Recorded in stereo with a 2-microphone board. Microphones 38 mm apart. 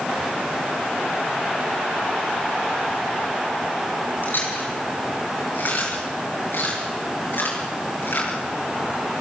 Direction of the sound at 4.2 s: 60° left (ahead or behind).